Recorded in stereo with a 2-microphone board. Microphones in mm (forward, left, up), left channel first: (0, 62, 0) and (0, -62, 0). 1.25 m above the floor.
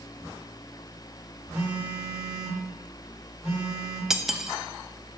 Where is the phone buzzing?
15° right (ahead or behind), 4 m.